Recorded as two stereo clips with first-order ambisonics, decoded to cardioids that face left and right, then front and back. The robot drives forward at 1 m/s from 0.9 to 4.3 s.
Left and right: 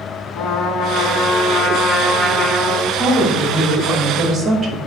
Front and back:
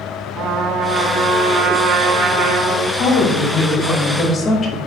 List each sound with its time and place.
0.3 s a trumpet: 130° left, 1.4 m; by 2.9 s 160° left, 3 m
3.0 s a woman speaking: 5° right, 1.9 m; by 4.8 s 20° right, 1.0 m